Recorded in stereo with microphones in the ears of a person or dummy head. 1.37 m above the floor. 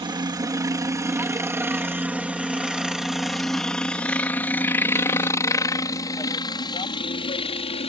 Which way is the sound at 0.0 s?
20° right (ahead or behind).